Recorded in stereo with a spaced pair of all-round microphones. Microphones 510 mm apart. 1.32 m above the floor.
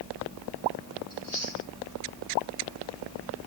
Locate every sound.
1.1 s chewing: 80° left, 4 m